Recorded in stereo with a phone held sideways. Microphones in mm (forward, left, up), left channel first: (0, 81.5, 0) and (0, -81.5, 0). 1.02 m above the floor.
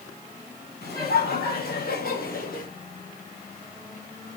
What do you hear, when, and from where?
0.8 s laughter: 75° left (ahead or behind), 7 m; by 2.7 s 60° left (ahead or behind), 5 m